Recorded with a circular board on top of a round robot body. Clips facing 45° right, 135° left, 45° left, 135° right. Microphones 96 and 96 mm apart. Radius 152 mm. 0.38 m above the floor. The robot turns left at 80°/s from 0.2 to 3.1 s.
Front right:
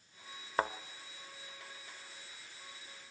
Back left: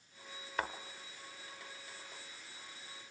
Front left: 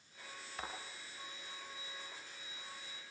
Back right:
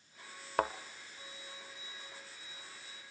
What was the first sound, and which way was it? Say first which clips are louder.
A thud: front right 5 dB, back right 14 dB; 100° right.